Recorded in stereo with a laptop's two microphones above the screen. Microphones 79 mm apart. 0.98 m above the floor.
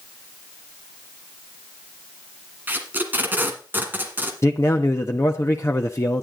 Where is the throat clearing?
I don't hear throat clearing.